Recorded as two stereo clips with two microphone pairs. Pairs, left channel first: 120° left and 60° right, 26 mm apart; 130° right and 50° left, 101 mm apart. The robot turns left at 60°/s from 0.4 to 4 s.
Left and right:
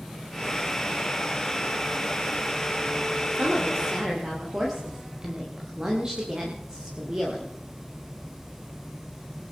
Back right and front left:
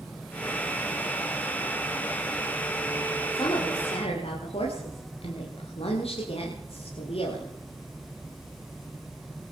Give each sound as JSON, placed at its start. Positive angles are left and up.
{"t": 3.3, "sound": "a woman speaking", "azimuth_deg": -75, "distance_m": 9.5}